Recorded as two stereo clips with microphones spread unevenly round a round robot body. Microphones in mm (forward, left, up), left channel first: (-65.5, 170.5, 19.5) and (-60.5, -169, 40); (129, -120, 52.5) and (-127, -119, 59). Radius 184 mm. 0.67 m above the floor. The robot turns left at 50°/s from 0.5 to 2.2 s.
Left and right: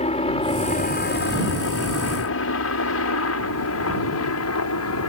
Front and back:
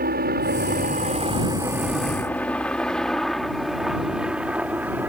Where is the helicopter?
150° left; by 5.1 s 95° left.